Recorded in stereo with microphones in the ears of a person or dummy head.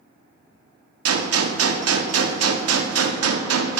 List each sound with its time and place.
1.1 s a gunshot: 85° right, 0.6 m